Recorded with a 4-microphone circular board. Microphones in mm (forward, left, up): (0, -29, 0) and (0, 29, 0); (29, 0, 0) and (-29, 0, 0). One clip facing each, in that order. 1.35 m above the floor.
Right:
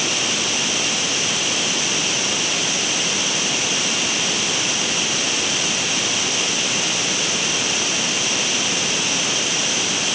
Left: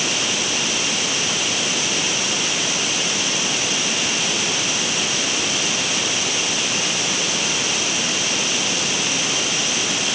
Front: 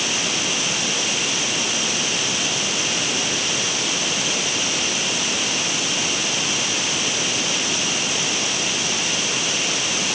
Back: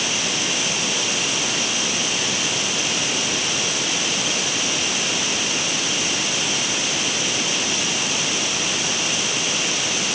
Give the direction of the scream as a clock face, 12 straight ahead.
I don't hear a scream.